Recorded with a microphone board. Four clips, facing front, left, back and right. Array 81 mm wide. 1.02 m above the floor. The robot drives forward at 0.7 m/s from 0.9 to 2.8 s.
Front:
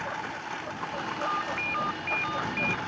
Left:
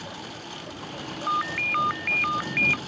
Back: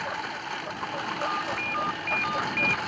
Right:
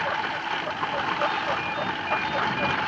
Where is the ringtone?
85° left; by 2.8 s 110° left.